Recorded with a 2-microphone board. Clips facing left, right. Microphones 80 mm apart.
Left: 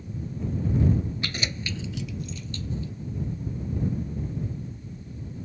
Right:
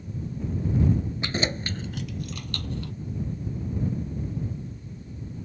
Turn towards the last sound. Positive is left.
turn(degrees=-65)  # may be behind; listen again after turning